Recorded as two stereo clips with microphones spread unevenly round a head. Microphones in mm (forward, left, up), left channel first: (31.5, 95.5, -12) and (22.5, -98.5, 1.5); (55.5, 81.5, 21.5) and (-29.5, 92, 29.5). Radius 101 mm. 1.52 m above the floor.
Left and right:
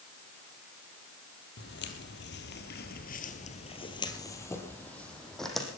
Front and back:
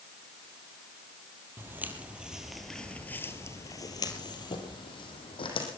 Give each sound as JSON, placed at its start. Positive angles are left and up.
{"t": 1.6, "sound": "footsteps", "azimuth_deg": 115, "distance_m": 3.0}